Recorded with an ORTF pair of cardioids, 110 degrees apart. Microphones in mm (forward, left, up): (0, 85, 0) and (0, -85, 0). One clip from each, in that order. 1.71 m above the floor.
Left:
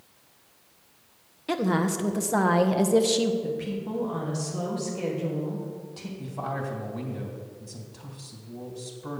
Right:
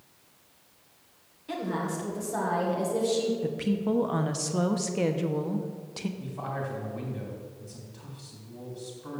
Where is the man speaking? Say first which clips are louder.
Left 4 dB; 30° left, 2.5 m.